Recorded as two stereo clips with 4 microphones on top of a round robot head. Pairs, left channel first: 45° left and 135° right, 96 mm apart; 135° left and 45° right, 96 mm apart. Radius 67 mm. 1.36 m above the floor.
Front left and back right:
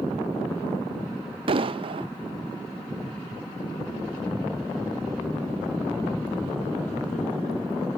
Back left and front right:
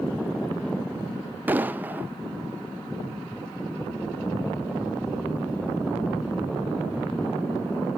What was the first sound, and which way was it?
An explosion, 115° right.